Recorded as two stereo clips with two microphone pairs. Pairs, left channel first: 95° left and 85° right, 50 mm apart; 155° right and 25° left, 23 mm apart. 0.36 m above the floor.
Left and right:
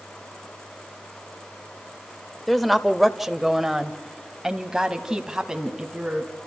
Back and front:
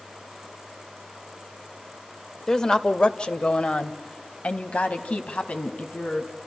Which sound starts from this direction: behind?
A woman speaking, at 2.5 s.